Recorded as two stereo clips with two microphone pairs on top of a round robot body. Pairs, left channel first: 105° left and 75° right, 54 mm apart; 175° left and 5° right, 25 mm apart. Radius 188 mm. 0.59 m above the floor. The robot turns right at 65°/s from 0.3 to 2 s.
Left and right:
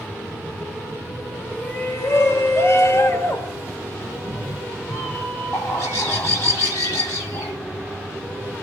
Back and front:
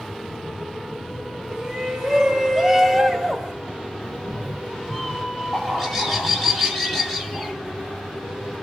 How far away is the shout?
About 2 m.